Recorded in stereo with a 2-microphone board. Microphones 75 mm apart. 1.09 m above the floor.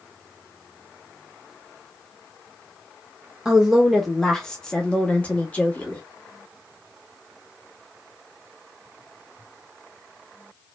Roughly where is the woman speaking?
Centre.